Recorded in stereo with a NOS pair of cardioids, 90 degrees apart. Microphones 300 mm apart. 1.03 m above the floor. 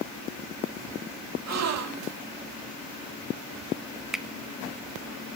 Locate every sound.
1.5 s a gasp: 55° right, 1.6 m
4.1 s a finger snap: straight ahead, 0.9 m